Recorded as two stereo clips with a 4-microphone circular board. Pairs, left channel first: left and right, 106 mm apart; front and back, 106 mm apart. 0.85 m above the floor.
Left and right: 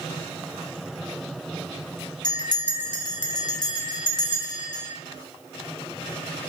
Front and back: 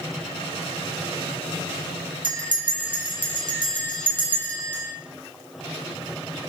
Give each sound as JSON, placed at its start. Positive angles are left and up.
{"t": 2.2, "sound": "a bell", "azimuth_deg": 140, "distance_m": 0.5}